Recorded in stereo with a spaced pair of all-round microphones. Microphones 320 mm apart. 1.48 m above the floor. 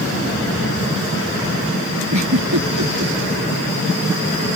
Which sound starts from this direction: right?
A giggle, at 2.1 s.